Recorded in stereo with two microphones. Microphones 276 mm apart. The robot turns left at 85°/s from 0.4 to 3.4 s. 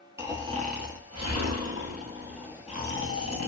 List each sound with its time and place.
0.2 s snoring: 10° right, 0.8 m; by 3.5 s 95° left, 0.8 m